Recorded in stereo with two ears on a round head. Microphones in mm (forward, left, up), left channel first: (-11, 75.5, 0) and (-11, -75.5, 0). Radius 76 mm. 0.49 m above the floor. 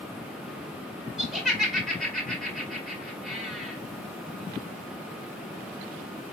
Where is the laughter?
Centre (ahead or behind), 2.0 m.